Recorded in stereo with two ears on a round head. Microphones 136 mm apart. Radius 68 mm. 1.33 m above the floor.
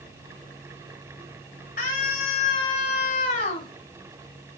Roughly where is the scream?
Left.